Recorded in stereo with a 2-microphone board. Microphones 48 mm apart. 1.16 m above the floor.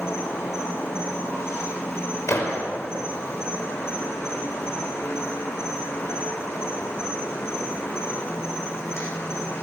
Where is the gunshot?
75° left (ahead or behind), 5 m.